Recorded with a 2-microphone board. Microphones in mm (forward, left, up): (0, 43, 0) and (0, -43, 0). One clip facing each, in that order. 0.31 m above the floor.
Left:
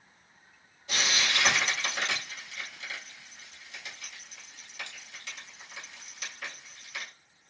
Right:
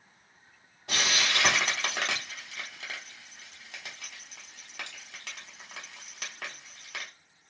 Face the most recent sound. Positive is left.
turn(degrees=-70)  # may be behind; listen again after turning